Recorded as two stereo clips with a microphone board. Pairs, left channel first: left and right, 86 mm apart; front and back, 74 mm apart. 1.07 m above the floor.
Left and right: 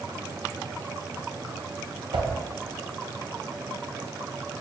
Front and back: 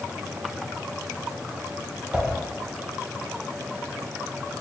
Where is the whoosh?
105° right, 0.5 m.